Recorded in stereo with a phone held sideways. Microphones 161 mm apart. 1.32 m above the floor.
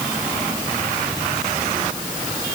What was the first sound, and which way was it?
Only background noise.